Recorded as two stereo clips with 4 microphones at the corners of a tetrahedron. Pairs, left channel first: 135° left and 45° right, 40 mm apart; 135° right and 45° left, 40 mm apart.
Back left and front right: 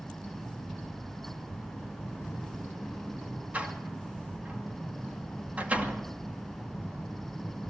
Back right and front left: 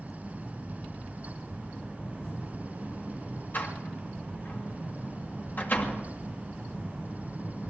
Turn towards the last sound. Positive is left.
turn(degrees=-95)